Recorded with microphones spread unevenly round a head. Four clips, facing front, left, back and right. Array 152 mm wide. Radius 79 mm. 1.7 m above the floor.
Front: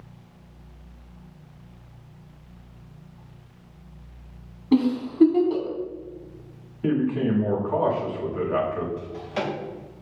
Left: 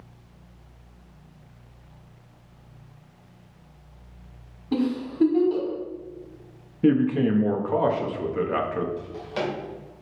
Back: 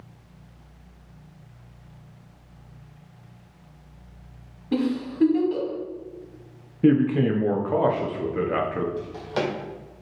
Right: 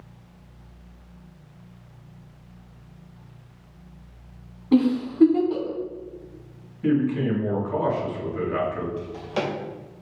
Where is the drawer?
140° right, 2 m.